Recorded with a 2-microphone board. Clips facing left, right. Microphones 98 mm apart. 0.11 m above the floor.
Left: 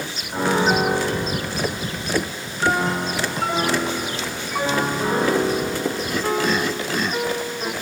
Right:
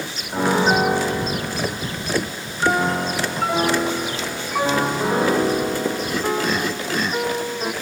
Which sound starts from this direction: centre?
A piano, at 0.3 s.